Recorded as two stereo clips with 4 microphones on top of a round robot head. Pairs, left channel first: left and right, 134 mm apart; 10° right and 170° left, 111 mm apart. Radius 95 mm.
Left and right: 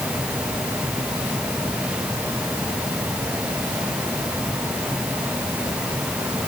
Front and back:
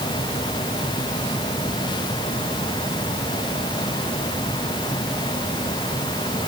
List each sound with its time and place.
Only background noise.